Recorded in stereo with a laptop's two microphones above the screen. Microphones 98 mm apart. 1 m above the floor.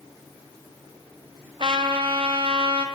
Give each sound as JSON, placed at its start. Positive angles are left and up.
{"t": 1.6, "sound": "a trumpet", "side_deg": -55, "distance_m": 1.5}